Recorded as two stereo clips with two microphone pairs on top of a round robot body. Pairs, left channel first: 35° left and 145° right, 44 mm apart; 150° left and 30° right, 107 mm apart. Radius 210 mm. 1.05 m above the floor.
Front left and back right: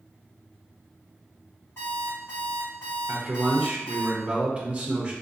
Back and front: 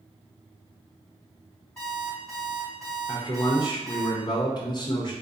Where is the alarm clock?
65° left, 0.7 m.